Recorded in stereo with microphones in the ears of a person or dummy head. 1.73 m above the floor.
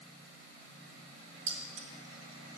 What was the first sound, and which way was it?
Keys jangling, 45° right (ahead or behind).